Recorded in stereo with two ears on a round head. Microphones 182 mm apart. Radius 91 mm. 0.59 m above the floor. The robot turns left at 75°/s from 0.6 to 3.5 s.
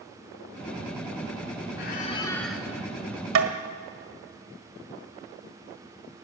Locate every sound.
1.8 s a squeak: 55° left, 1.6 m; by 2.6 s 10° right, 1.6 m
3.4 s tapping: 70° right (ahead or behind), 1.6 m; by 3.5 s 80° right, 1.6 m